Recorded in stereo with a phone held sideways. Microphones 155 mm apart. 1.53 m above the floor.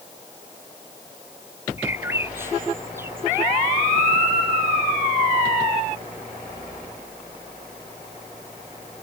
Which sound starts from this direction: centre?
A bird, at 1.8 s.